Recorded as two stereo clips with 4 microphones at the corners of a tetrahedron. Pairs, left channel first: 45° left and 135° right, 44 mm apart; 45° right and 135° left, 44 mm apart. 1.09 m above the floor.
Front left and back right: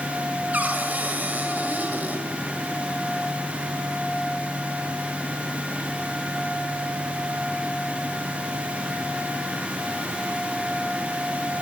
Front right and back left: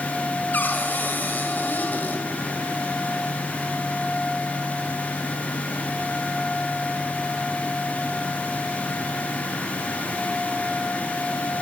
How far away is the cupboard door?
About 2 m.